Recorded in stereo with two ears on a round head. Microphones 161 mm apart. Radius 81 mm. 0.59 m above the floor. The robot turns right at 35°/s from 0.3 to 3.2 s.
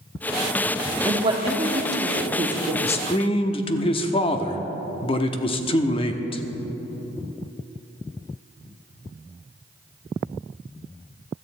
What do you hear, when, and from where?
1.1 s a woman speaking: 145° right, 1.3 m; by 2.7 s 85° right, 1.3 m
2.8 s a man speaking: 35° left (ahead or behind), 0.9 m; by 6.4 s 30° left (ahead or behind), 0.9 m